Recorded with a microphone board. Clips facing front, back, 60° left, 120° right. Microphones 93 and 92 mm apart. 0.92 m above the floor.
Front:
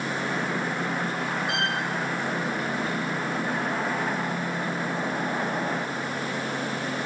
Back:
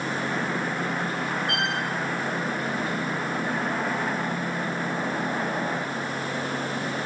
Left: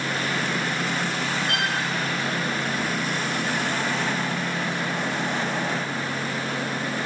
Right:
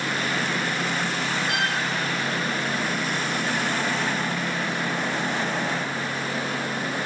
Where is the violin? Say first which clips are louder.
Even, even; 70° left, 4 m.